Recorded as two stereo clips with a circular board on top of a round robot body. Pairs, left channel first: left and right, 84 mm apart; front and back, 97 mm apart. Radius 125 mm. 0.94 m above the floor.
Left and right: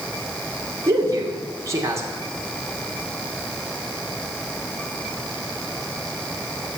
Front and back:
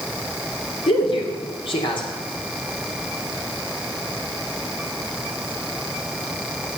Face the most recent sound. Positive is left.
turn(degrees=-35)